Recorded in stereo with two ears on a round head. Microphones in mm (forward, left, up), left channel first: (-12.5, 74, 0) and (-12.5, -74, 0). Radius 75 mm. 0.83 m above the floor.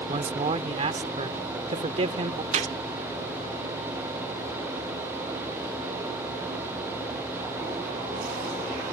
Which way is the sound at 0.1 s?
40° right (ahead or behind).